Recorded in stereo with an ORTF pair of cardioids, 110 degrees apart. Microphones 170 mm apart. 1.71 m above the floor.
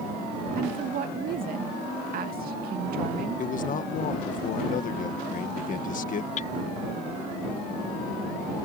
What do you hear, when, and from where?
0.6 s a woman speaking: 60° right
3.4 s a man speaking: 50° left
6.4 s hammering: 45° left